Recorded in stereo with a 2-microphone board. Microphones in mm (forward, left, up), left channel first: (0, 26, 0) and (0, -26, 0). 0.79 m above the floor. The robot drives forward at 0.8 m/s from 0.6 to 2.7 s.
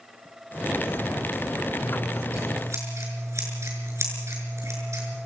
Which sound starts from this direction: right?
Scissors, at 1.8 s.